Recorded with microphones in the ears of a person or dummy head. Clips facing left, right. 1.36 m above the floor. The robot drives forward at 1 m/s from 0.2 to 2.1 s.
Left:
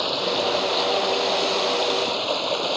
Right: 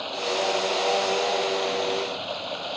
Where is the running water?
60° left (ahead or behind); by 2.8 s 65° left (ahead or behind).